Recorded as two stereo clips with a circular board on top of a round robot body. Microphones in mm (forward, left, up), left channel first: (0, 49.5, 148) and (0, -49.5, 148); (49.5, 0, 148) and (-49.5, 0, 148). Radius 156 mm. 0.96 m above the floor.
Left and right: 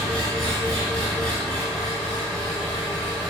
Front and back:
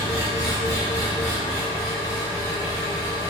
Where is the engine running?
30° right, 2 m.